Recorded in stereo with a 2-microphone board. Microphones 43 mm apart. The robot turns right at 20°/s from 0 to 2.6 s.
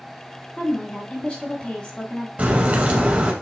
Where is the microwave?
I don't hear a microwave.